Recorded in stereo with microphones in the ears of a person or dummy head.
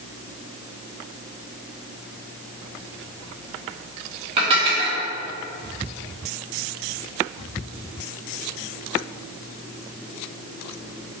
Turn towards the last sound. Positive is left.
turn(degrees=-30)  # may be behind; listen again after turning